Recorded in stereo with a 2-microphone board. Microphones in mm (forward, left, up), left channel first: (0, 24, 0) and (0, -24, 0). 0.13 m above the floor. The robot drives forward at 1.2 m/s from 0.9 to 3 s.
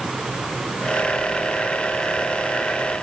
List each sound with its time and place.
Only background noise.